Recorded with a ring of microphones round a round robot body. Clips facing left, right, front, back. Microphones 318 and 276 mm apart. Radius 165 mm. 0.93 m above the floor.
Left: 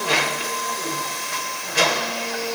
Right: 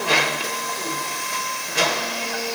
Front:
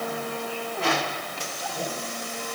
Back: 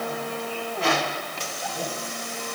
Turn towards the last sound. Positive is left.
No sound to turn to.